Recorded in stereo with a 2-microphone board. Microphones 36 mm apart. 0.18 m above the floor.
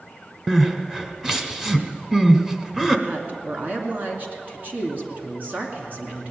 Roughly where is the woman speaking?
Right.